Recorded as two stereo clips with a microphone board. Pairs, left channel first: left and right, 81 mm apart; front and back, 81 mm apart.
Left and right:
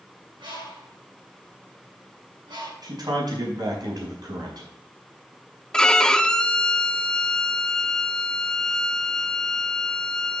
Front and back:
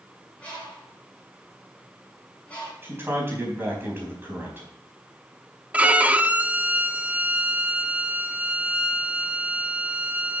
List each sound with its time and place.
0.4 s a bird: 75° right, 5.5 m
2.8 s a man speaking: 120° right, 4 m
5.7 s a violin: 150° left, 0.6 m